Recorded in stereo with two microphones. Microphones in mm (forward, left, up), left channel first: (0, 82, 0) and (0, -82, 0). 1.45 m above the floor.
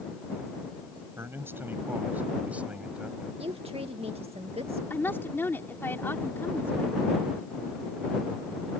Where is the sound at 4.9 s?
15° left (ahead or behind).